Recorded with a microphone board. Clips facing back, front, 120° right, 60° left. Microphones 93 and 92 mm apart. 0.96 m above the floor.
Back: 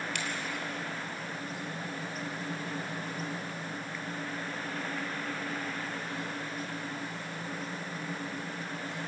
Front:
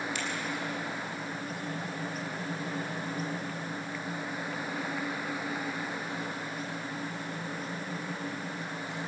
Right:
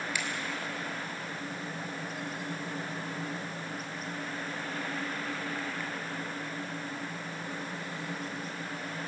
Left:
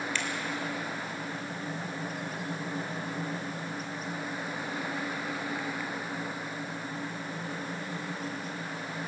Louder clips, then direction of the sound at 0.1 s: Front 1 dB, left 2 dB; 160° left.